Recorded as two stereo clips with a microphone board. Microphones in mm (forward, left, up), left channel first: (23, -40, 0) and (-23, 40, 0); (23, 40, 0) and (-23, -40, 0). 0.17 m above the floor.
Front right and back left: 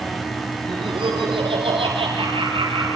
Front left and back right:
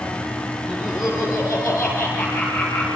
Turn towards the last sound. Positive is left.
turn(degrees=140)